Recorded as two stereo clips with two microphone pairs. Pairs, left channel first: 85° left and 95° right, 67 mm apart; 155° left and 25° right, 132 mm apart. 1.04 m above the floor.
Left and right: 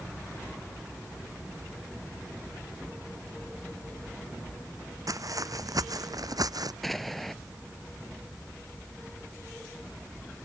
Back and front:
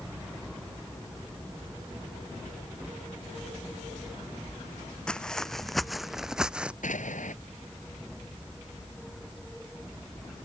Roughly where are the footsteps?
Behind right.